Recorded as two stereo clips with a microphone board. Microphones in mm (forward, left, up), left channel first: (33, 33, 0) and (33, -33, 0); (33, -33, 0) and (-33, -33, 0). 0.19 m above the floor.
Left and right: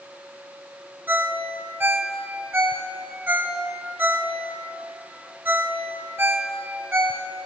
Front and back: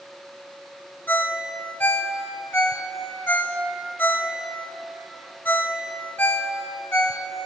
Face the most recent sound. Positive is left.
turn(degrees=-50)